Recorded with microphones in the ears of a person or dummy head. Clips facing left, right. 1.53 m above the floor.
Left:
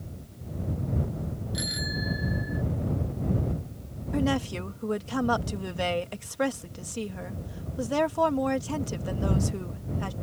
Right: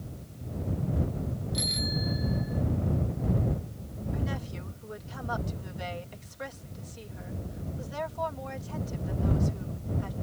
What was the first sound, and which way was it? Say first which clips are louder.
A bicycle bell: right 1 dB; 15° left (ahead or behind).